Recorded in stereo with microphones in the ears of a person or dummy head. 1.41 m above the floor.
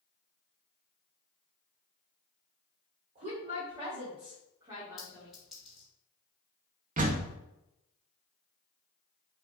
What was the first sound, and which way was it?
A woman speaking, 40° right (ahead or behind).